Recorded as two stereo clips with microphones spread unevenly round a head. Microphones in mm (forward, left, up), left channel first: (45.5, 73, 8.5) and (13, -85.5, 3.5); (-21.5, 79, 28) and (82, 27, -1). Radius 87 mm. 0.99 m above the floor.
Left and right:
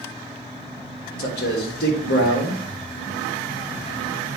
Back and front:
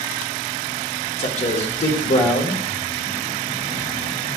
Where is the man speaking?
115° left, 1.3 m.